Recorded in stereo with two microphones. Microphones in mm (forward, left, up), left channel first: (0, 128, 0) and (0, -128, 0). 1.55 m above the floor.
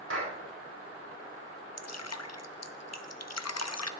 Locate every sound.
0.1 s a clap: 60° right (ahead or behind), 5 m
1.8 s dripping: 80° left, 0.6 m